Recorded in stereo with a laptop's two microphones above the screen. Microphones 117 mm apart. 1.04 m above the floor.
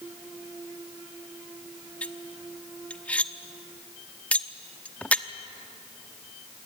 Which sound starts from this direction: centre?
Cutlery clinking, at 2.0 s.